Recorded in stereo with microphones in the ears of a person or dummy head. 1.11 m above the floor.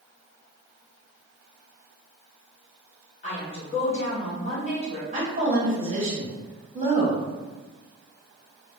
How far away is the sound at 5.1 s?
About 0.9 m.